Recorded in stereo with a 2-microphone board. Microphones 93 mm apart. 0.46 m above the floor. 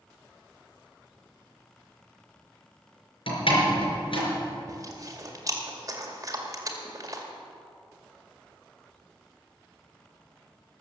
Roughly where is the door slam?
Left.